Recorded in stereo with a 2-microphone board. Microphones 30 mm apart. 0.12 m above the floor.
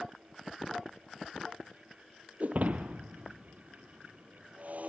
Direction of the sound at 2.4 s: 55° right (ahead or behind).